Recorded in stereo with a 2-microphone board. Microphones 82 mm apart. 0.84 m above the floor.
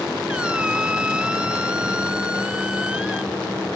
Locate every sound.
0.3 s a squeak: 10° right (ahead or behind)